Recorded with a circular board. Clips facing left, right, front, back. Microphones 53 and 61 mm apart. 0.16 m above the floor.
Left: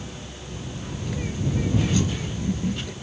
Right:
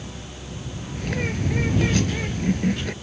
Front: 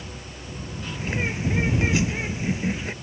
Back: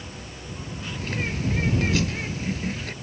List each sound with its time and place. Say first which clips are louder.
0.9 s a bird: right 5 dB, front 2 dB; 70° right